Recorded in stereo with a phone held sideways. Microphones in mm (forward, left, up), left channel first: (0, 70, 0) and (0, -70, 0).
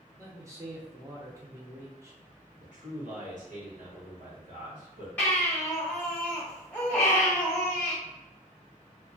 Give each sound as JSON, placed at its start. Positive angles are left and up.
{"t": 0.2, "sound": "a man speaking", "side_deg": -20, "distance_m": 0.6}
{"t": 2.6, "sound": "a man speaking", "side_deg": -65, "distance_m": 1.1}
{"t": 5.2, "sound": "a baby crying", "side_deg": 15, "distance_m": 1.3}